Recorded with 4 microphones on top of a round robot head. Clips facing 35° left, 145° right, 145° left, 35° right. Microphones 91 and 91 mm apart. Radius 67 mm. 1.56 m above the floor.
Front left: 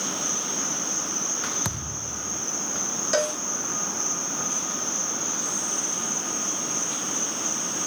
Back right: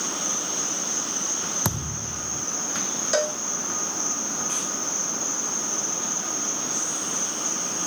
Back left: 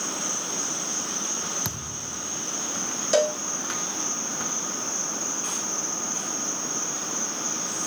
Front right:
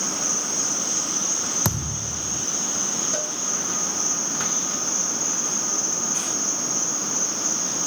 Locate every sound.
0.0 s an insect: 70° right
1.6 s a thud: 85° right
3.1 s a cowbell: 130° left